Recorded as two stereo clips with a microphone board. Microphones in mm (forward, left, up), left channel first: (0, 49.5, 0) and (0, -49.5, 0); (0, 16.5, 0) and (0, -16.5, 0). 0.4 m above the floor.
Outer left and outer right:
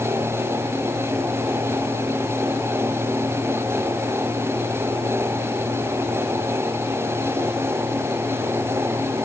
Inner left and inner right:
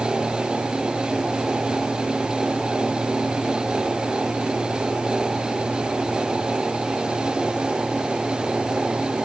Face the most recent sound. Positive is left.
No sound to turn to.